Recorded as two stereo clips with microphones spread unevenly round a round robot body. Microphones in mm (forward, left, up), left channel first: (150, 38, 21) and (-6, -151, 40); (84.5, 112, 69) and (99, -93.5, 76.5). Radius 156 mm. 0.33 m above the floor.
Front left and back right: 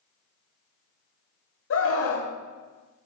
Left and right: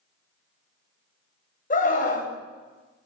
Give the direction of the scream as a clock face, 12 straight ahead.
10 o'clock.